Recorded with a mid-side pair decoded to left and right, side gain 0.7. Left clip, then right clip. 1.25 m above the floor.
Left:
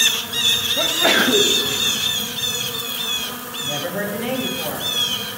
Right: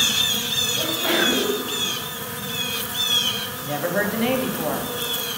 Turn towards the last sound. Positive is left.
turn(degrees=-20)